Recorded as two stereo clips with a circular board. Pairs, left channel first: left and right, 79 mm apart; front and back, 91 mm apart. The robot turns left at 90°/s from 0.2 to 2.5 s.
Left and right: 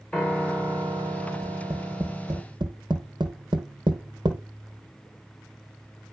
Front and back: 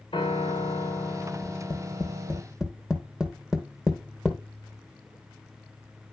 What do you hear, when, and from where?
0.1 s a piano: 20° left, 4 m; by 2.4 s straight behind, 4 m
1.4 s tapping: 5° left, 1.8 m; by 4.4 s 95° right, 1.8 m